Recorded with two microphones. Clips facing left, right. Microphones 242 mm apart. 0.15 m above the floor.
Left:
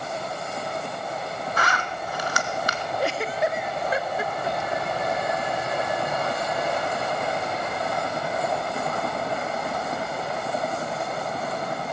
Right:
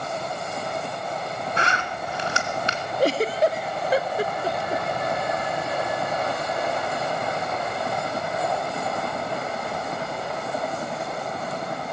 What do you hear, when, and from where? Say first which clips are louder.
1.6 s a zipper: right 1 dB; 25° right (ahead or behind), 1.4 m
3.0 s a giggle: right 6 dB; 35° right (ahead or behind), 0.5 m